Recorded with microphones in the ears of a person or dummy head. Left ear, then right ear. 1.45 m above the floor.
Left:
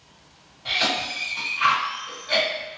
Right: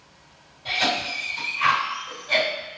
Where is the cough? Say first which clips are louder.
Even; 15° left (ahead or behind), 1.5 m.